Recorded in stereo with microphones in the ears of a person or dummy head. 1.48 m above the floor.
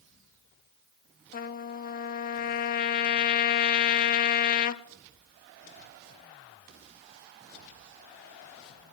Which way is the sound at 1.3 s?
45° left (ahead or behind).